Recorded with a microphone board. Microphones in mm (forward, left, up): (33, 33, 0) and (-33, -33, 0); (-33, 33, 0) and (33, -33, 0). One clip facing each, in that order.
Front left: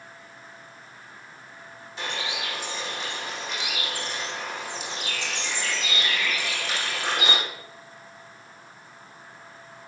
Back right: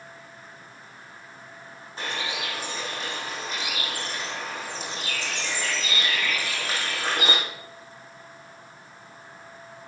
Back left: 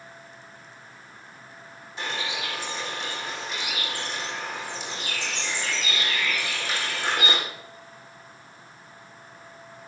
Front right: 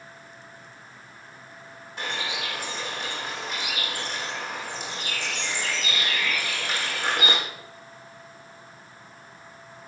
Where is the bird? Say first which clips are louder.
Even, even; 85° right, 8 m.